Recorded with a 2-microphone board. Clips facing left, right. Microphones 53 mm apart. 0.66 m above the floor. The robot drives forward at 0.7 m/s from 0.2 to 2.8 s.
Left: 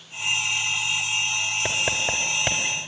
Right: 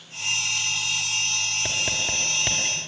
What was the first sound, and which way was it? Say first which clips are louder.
Writing: left 3 dB; 20° left (ahead or behind).